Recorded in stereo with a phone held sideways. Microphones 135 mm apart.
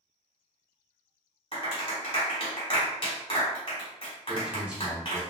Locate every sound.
1.5 s a clap: 45° left (ahead or behind), 1.2 m
4.3 s a man speaking: 10° right (ahead or behind), 0.9 m